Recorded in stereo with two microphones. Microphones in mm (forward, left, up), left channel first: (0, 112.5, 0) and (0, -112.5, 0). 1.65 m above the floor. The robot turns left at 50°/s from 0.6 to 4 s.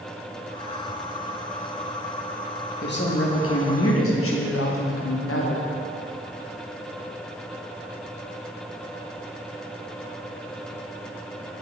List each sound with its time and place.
2.8 s a woman speaking: 135° left, 0.6 m; by 5.7 s 75° left, 0.6 m